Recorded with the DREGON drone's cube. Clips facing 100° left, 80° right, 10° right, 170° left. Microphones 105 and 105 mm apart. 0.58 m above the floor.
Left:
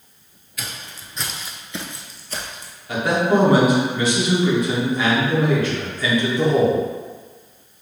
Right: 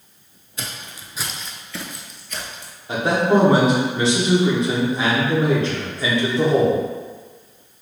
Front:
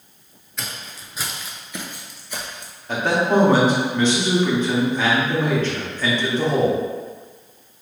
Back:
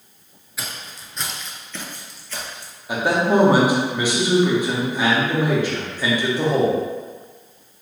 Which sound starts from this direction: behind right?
A man speaking, at 2.9 s.